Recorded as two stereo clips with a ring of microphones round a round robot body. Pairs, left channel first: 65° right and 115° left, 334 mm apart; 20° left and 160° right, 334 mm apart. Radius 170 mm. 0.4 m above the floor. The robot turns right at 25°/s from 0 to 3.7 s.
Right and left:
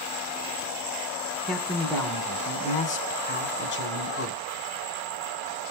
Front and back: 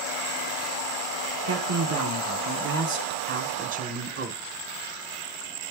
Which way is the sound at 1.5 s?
160° right.